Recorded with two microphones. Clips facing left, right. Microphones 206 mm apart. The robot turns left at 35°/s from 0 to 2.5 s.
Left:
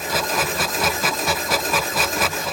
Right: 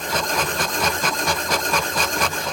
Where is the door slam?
No door slam in this recording.